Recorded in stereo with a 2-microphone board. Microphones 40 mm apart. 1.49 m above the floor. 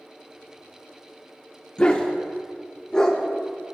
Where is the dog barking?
25° left (ahead or behind), 1.1 m; by 3.8 s 10° left (ahead or behind), 2 m.